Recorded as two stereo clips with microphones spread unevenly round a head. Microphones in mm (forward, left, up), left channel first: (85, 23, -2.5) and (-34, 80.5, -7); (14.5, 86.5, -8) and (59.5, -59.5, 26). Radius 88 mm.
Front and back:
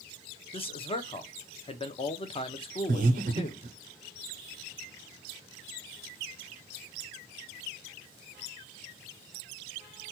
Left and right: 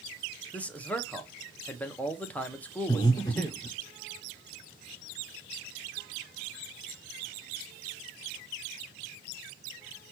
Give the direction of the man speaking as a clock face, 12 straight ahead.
11 o'clock.